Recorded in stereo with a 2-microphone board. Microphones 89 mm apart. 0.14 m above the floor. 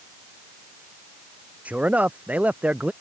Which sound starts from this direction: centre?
A man speaking, at 1.6 s.